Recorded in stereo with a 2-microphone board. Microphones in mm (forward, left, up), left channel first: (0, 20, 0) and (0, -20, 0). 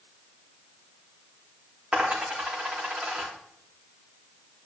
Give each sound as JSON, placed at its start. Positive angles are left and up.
{"t": 1.9, "sound": "a dropped coin", "side_deg": -25, "distance_m": 3.5}